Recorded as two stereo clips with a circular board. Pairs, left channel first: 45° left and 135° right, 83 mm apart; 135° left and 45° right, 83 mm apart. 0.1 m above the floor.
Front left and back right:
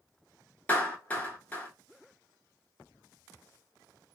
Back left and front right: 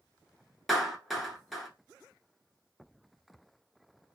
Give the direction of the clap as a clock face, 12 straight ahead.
11 o'clock.